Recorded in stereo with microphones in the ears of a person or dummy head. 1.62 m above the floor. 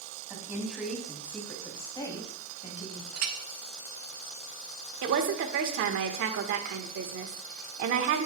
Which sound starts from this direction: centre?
A woman speaking, at 0.3 s.